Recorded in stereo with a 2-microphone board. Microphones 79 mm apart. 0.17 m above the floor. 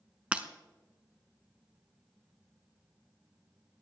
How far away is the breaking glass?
About 0.9 m.